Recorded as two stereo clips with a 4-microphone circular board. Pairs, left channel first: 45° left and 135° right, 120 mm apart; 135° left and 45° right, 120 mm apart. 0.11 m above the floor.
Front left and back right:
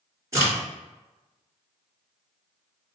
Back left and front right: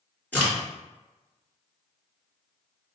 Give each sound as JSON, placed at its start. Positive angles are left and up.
{"t": 0.3, "sound": "a crack", "azimuth_deg": -165, "distance_m": 1.8}